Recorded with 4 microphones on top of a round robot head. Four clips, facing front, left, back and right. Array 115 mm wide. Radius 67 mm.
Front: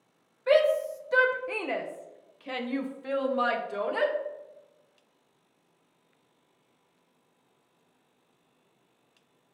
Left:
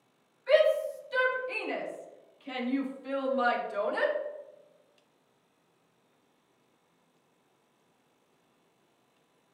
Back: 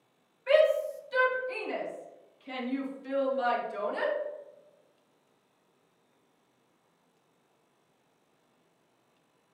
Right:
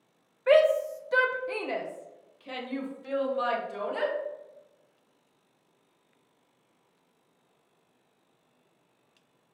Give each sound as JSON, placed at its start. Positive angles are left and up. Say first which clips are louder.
{"t": 0.5, "sound": "a shout", "louder": "right 3 dB, front 1 dB", "azimuth_deg": -65, "distance_m": 1.2}